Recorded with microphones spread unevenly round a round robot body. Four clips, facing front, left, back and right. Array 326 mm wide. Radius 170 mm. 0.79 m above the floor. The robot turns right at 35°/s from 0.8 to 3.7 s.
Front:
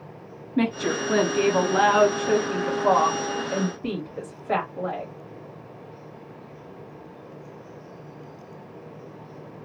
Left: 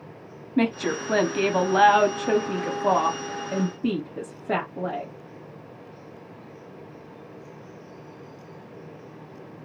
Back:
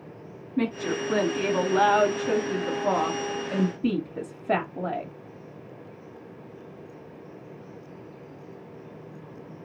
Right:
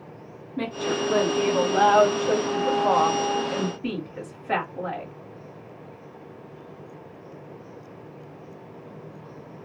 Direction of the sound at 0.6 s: 50° left.